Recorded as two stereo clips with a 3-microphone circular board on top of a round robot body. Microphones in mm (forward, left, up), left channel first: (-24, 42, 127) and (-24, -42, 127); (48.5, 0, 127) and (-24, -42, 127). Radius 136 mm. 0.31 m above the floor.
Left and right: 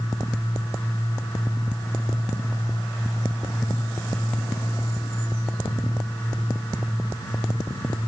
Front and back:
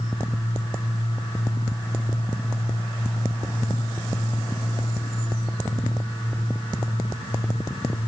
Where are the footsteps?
No footsteps in this recording.